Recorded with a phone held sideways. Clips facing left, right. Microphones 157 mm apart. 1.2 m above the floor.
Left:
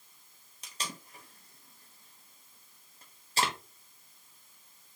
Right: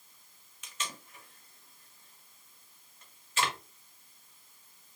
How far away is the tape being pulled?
About 1.0 m.